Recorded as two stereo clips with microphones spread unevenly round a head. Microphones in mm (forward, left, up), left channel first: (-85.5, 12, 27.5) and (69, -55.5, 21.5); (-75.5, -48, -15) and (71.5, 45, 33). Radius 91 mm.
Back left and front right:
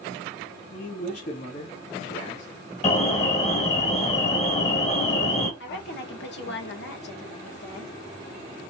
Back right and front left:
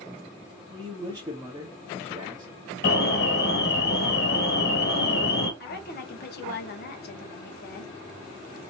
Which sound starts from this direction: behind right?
An alarm, at 2.8 s.